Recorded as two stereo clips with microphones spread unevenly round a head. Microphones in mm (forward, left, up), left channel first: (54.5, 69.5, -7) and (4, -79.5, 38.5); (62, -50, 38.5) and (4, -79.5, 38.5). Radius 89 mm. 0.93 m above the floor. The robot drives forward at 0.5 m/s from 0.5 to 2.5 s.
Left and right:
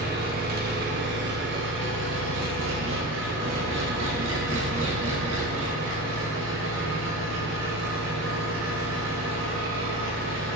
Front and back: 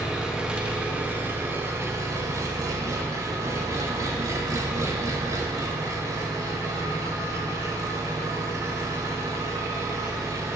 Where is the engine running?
80° right, 1.3 m; by 10.6 s 120° right, 1.5 m.